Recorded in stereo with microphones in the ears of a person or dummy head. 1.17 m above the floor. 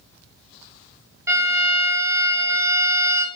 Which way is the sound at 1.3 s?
10° right (ahead or behind).